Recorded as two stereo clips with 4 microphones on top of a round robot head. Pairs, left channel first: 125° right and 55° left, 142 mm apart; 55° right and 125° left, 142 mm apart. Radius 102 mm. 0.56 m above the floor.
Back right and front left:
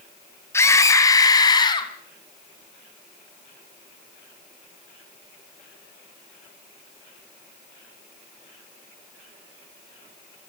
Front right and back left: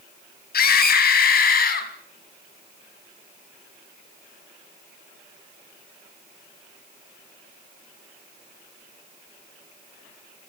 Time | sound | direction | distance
0.5 | a scream | 55° right | 4.5 m